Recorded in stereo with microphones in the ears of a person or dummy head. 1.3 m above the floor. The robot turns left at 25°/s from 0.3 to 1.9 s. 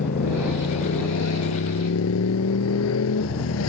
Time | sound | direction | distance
0.0 | a motorcycle | 130° left | ?